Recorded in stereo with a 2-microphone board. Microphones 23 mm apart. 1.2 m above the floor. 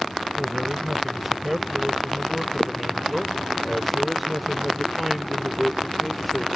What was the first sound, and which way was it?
A man speaking, 15° right (ahead or behind).